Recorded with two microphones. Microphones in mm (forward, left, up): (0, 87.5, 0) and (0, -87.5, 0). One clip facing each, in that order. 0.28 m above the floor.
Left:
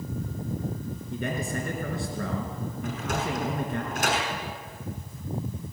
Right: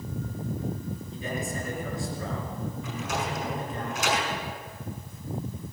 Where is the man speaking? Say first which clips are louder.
Left 4 dB; 70° left (ahead or behind), 4.5 m.